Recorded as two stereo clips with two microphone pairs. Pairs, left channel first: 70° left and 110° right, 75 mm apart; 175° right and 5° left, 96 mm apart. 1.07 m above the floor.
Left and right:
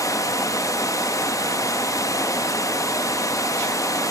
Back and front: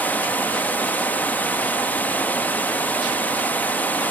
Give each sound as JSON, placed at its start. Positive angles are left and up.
{"t": 0.0, "sound": "running water", "azimuth_deg": 115, "distance_m": 1.1}